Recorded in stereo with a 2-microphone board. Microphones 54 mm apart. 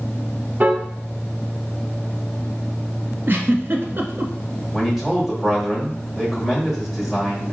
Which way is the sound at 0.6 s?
30° right (ahead or behind).